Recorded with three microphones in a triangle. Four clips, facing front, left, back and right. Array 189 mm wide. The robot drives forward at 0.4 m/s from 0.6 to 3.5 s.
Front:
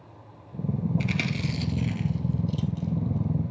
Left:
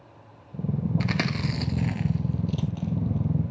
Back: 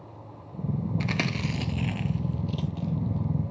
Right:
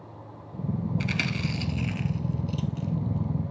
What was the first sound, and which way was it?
Chewing, 120° left.